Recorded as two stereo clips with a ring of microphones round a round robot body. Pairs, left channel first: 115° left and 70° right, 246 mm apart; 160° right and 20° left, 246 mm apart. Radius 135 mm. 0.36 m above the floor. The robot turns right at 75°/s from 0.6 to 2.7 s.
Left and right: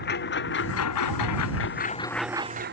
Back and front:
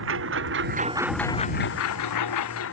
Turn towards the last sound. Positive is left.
turn(degrees=-115)